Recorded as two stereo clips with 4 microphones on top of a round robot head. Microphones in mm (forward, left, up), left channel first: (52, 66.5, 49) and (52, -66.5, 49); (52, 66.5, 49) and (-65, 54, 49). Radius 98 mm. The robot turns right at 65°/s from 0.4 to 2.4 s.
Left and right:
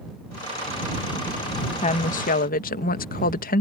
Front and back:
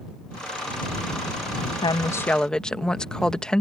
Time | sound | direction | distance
1.8 | a woman speaking | 50° left | ?